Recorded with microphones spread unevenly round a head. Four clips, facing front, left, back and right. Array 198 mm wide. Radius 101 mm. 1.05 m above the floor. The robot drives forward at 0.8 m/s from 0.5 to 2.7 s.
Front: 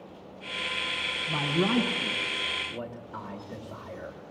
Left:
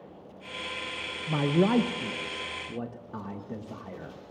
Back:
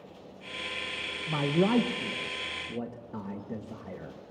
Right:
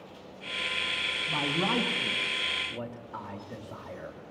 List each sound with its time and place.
1.3 s a man speaking: 95° left, 1.4 m; by 4.2 s 135° left, 1.8 m